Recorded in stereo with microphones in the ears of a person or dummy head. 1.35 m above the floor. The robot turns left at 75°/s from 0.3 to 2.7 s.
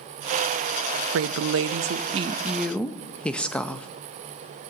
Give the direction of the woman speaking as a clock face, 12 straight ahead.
2 o'clock.